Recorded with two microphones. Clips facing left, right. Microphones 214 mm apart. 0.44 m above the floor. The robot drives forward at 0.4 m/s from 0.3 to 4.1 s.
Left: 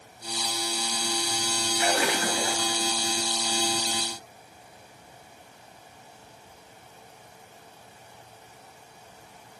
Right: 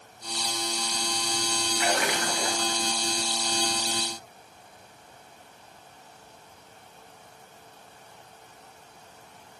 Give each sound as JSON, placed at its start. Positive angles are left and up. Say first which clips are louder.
{"t": 1.8, "sound": "a splash", "louder": "left 2 dB", "side_deg": 30, "distance_m": 5.0}